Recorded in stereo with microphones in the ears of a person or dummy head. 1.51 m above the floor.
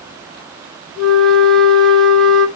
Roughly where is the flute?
Centre.